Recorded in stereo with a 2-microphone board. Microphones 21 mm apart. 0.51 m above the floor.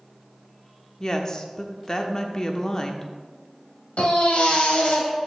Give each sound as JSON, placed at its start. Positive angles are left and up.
{"t": 1.0, "sound": "a woman speaking", "side_deg": 30, "distance_m": 0.8}
{"t": 4.0, "sound": "a baby crying", "side_deg": 70, "distance_m": 1.9}